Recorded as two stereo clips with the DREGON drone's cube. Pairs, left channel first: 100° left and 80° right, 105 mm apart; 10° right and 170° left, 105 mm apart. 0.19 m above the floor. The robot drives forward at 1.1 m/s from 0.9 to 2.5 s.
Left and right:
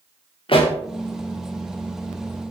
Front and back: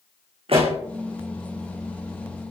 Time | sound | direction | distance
0.5 | a pop | 135° left | 4 m